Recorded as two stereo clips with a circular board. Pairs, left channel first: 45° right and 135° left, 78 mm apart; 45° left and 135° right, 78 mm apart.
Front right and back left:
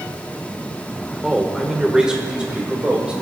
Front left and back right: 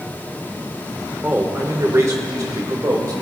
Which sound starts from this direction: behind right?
A man speaking, at 1.2 s.